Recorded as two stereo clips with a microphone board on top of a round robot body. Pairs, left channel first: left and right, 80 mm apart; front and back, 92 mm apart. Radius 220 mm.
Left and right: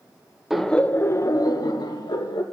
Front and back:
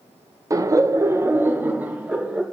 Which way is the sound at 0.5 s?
170° right.